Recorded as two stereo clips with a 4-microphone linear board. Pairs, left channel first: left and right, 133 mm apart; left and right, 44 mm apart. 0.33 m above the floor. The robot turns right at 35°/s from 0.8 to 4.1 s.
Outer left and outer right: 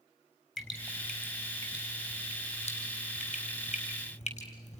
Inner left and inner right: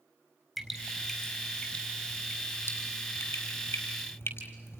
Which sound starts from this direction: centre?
Dripping, at 0.6 s.